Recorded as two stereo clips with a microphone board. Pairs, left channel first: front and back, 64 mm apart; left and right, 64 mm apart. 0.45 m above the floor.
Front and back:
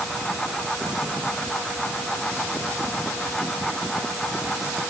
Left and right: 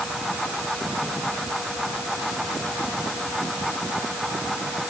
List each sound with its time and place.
Only background noise.